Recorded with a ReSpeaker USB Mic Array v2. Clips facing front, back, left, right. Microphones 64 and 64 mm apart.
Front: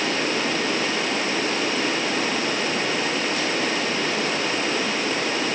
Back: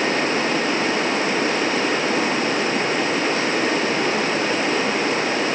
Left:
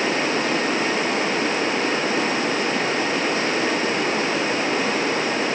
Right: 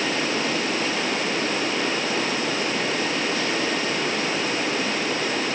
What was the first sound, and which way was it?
Only background noise.